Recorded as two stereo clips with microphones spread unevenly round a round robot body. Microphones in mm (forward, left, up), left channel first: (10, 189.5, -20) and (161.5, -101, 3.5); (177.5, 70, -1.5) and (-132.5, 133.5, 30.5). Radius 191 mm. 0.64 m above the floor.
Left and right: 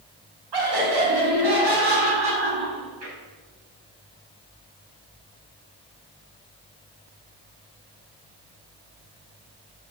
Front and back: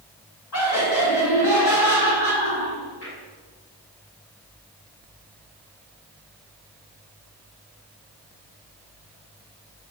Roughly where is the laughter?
Ahead right.